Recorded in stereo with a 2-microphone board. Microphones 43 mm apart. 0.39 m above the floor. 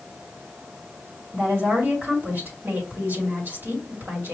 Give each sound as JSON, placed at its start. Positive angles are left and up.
{"t": 1.3, "sound": "a woman speaking", "side_deg": -55, "distance_m": 2.5}